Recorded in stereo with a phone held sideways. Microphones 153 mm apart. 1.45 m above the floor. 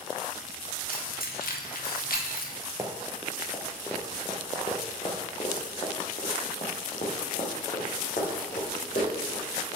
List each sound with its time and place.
0.9 s keys jangling: 70° left (ahead or behind), 1.4 m
2.8 s running footsteps: 20° right (ahead or behind), 1.5 m; by 9.8 s 65° left (ahead or behind), 5 m